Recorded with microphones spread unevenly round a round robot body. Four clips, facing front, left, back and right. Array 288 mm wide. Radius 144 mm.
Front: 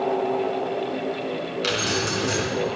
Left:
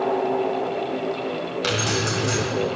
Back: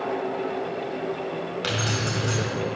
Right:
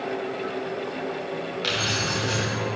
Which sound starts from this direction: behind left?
Keys jangling, at 1.6 s.